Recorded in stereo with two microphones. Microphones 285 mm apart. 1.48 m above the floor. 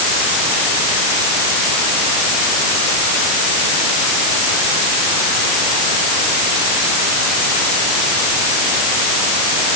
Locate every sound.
Only background noise.